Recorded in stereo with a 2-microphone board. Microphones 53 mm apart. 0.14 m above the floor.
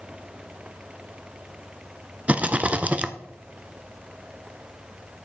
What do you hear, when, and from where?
2.3 s a rattle: 25° right (ahead or behind), 0.6 m